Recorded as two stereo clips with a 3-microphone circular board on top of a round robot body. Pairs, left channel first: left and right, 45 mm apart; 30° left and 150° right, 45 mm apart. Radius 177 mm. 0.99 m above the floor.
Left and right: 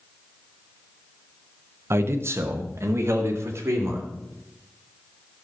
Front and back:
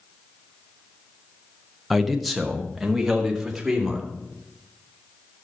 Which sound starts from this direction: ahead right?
A man speaking, at 1.9 s.